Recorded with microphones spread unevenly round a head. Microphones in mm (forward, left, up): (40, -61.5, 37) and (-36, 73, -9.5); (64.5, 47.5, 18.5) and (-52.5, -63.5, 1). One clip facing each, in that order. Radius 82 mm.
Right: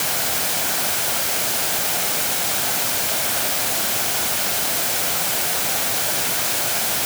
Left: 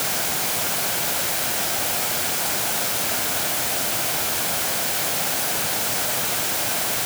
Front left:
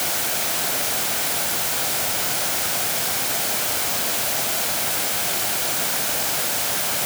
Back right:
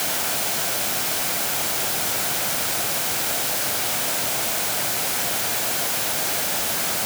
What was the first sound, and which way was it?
Only background noise.